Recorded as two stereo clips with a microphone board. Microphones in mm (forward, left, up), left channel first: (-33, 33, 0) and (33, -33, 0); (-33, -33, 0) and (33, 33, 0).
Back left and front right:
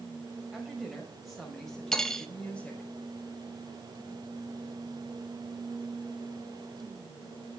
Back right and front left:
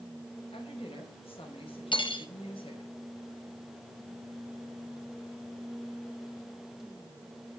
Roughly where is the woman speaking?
Behind right.